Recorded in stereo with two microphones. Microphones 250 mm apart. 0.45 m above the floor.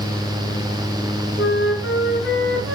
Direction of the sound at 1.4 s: 55° left (ahead or behind).